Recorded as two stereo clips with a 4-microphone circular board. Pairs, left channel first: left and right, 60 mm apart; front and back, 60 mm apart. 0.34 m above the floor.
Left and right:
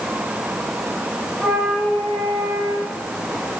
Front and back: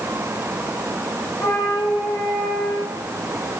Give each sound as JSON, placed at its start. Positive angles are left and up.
{"t": 1.4, "sound": "a flute", "azimuth_deg": 15, "distance_m": 7.5}